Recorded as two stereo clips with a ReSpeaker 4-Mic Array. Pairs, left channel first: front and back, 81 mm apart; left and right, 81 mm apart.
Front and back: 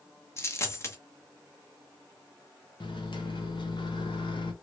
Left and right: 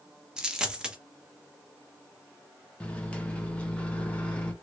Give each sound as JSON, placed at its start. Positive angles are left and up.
{"t": 0.4, "sound": "a dropped coin", "azimuth_deg": -15, "distance_m": 0.8}
{"t": 2.8, "sound": "a microwave", "azimuth_deg": 15, "distance_m": 0.8}